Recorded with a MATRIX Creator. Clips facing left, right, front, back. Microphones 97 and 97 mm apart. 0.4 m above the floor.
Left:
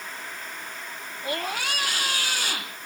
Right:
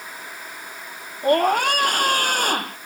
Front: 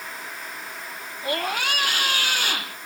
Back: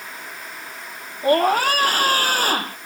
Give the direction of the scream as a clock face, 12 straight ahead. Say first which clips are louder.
Right 13 dB, back 10 dB; 4 o'clock.